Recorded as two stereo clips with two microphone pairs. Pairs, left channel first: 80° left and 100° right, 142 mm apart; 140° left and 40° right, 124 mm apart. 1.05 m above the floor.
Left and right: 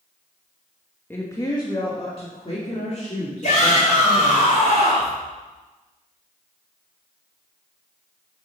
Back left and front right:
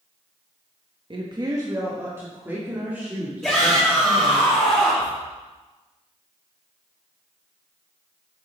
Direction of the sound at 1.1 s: 5° left.